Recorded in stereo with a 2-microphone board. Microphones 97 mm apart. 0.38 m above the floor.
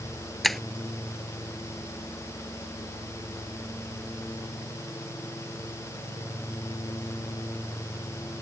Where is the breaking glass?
Centre (ahead or behind).